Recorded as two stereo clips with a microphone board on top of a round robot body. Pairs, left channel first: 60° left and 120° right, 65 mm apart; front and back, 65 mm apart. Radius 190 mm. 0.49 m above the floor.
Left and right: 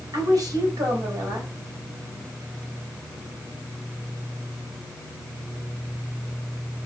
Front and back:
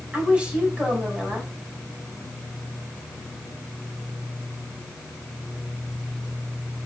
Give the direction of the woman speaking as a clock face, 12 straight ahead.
3 o'clock.